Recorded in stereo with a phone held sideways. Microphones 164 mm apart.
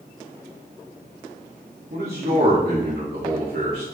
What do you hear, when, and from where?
1.9 s a man speaking: 85° right, 1.5 m